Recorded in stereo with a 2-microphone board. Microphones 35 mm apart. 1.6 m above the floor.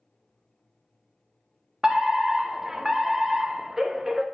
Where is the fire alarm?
15° right (ahead or behind), 0.6 m.